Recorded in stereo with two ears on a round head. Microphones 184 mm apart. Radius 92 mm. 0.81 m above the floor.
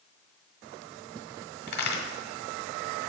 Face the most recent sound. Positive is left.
turn(degrees=50)  # may be behind; listen again after turning